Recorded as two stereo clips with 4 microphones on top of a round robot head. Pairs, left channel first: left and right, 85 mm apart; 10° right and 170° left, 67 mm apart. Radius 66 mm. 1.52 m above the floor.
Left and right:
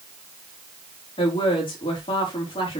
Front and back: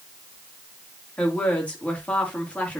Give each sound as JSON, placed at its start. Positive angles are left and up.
{"t": 1.2, "sound": "a woman speaking", "azimuth_deg": 55, "distance_m": 3.5}